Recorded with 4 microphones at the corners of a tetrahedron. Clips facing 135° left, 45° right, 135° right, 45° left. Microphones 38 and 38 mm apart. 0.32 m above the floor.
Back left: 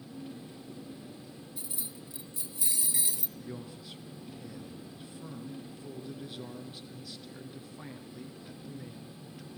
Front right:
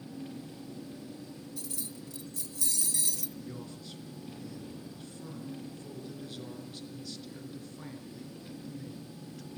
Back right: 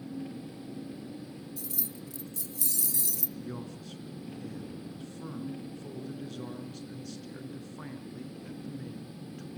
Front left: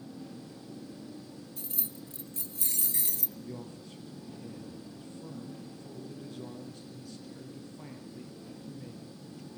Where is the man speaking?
150° right, 3.5 m.